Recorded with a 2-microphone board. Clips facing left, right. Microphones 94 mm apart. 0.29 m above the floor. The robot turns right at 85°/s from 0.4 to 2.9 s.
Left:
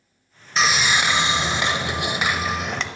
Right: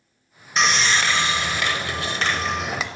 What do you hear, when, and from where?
0.6 s sawing: centre (ahead or behind), 0.6 m; by 2.9 s 5° right (ahead or behind), 0.6 m